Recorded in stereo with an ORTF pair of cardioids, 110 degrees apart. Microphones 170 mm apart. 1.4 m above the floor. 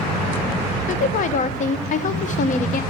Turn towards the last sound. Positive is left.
turn(degrees=50)